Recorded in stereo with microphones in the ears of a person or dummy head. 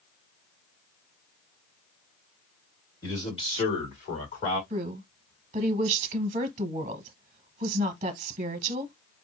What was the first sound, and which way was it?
A man speaking, 20° left (ahead or behind).